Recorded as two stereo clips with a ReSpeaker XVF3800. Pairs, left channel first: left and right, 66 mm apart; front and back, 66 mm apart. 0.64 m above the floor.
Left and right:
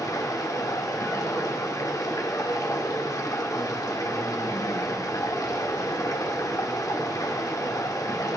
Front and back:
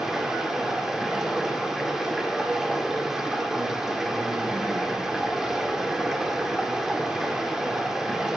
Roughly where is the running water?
Left.